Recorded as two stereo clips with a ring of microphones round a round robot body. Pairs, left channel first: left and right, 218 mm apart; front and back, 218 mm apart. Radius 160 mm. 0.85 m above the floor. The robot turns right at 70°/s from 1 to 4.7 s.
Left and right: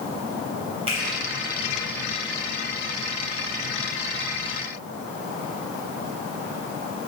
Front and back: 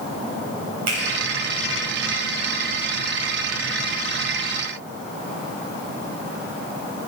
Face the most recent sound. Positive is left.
turn(degrees=95)